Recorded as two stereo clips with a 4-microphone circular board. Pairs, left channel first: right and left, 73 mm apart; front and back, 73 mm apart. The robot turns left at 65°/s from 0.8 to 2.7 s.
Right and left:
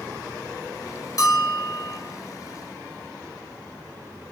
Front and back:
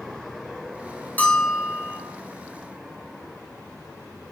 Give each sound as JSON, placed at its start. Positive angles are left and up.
{"t": 1.2, "sound": "a bell", "azimuth_deg": -65, "distance_m": 3.0}